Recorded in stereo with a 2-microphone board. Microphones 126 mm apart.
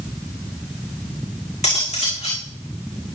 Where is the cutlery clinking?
60° left (ahead or behind), 6 m.